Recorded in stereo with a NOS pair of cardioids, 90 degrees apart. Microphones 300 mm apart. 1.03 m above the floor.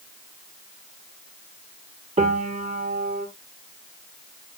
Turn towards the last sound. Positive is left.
turn(degrees=-20)